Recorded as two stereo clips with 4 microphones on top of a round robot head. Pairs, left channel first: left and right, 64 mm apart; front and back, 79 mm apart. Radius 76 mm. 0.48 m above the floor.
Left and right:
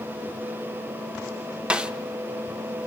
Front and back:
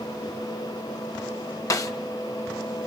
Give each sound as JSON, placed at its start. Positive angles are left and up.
{"t": 1.7, "sound": "a snare drum", "azimuth_deg": -20, "distance_m": 1.3}